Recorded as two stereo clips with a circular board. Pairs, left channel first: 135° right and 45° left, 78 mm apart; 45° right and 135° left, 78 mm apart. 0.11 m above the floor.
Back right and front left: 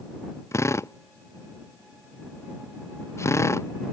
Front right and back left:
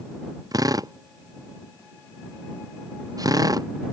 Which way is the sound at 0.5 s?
175° left.